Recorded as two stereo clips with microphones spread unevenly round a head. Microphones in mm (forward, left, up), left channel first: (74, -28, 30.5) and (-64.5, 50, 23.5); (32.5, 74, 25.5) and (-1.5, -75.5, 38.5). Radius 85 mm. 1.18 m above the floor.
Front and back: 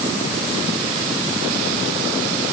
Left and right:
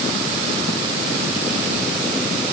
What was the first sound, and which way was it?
Only background noise.